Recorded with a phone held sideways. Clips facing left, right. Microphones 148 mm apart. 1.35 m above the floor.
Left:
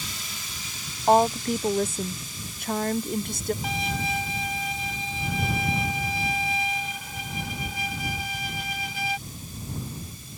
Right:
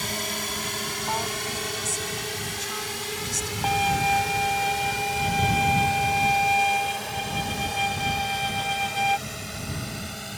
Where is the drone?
60° right (ahead or behind); by 10.4 s 85° right.